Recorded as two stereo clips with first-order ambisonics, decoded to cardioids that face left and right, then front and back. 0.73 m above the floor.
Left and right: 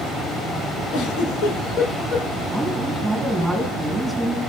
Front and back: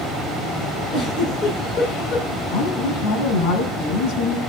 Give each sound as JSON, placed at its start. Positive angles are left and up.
{"t": 0.9, "sound": "a giggle", "azimuth_deg": 55, "distance_m": 8.5}
{"t": 2.5, "sound": "a woman speaking", "azimuth_deg": 0, "distance_m": 8.5}